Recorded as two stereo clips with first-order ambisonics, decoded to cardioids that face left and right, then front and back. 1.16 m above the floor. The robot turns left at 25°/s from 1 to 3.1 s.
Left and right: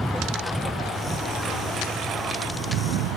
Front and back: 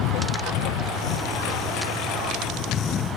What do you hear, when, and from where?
0.0 s a lawn mower: 10° right; by 3.2 s 65° right